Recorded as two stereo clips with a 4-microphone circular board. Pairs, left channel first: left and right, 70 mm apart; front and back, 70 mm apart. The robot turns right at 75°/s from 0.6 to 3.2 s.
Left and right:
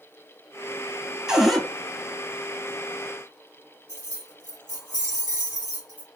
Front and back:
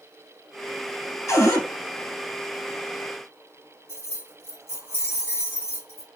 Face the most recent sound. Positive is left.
turn(degrees=-55)